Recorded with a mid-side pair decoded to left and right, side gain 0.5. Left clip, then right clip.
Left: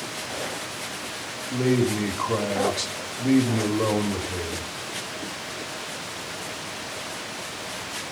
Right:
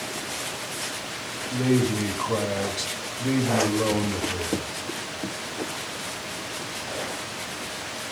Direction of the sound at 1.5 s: 10° left.